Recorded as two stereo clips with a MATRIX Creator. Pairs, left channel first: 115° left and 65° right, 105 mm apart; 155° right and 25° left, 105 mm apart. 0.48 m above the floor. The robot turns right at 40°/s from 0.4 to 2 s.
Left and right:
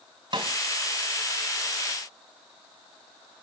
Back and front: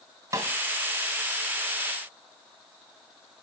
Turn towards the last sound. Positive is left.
turn(degrees=30)